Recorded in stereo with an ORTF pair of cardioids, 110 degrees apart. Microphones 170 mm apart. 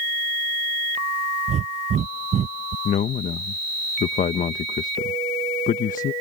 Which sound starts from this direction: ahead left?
A man speaking, at 2.9 s.